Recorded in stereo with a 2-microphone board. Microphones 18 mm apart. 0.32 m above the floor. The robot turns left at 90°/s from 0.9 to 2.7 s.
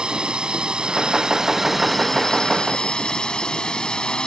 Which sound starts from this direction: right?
A drone, at 0.0 s.